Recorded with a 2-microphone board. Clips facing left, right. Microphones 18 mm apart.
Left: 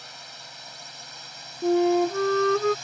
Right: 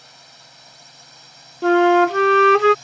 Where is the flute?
85° right.